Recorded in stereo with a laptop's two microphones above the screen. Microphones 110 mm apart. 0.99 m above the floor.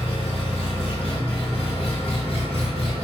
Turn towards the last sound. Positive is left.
turn(degrees=65)  # may be behind; listen again after turning